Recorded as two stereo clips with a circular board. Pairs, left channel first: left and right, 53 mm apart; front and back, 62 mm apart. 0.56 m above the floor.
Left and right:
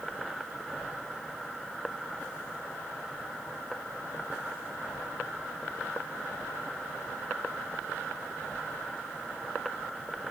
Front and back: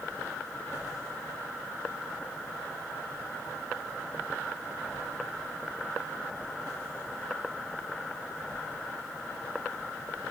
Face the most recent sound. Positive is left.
No sound to turn to.